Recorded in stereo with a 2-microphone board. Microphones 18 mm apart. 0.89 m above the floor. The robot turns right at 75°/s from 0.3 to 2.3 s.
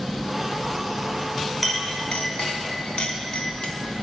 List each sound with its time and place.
1.6 s a clink: 10° left (ahead or behind), 1.1 m; by 3.7 s 60° left (ahead or behind), 1.1 m